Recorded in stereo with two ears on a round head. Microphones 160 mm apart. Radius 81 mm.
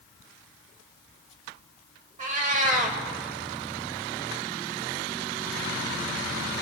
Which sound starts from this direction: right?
A cat meowing, at 2.2 s.